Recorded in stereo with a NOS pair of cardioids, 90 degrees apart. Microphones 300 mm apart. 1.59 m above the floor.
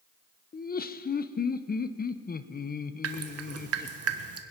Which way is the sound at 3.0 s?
50° right.